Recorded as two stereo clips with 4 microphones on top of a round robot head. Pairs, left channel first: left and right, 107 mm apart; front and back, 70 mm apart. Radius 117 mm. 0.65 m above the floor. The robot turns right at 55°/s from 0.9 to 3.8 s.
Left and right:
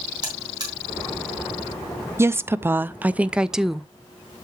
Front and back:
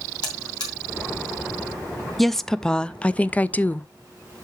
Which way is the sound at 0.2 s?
35° right.